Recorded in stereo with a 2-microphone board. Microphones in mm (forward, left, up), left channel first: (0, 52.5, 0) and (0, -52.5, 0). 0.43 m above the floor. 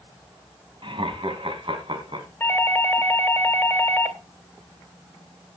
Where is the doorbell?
20° left (ahead or behind), 2.5 m.